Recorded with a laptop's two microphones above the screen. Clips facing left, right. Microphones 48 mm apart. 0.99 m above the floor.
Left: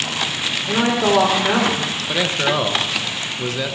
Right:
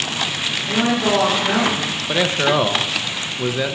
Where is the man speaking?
15° right (ahead or behind), 0.9 m.